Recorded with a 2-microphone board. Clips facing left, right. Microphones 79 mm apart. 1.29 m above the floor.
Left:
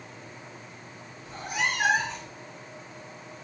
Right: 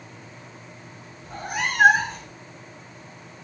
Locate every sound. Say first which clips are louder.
1.2 s a cat meowing: right 2 dB; 60° right (ahead or behind), 3 m